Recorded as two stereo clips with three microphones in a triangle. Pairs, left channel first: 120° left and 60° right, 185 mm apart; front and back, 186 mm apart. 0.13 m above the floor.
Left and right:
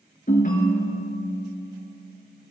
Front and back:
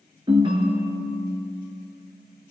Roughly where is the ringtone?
Behind left.